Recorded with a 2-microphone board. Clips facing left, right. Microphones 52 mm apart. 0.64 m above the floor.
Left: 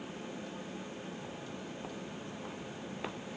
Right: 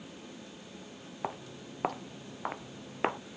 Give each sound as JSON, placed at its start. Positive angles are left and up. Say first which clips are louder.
{"t": 1.2, "sound": "footsteps", "louder": "right 4 dB", "side_deg": -70}